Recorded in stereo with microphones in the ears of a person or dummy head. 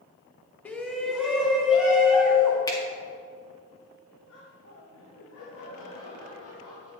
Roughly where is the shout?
Centre.